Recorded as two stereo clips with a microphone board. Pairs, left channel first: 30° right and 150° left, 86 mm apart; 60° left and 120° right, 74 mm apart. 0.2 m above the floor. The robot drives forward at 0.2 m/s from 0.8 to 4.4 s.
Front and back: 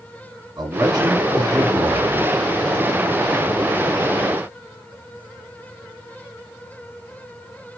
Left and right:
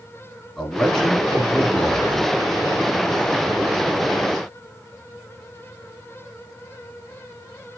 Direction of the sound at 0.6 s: 140° left.